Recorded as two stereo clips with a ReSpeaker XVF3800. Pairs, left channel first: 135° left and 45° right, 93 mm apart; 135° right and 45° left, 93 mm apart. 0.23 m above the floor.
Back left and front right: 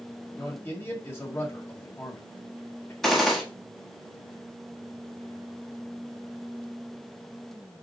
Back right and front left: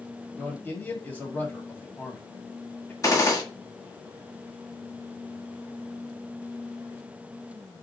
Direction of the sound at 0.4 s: 175° left.